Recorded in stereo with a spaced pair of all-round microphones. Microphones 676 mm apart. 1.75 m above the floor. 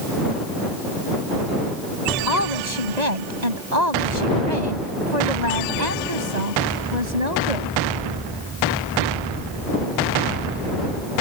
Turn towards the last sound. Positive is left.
turn(degrees=-75)  # may be behind; listen again after turning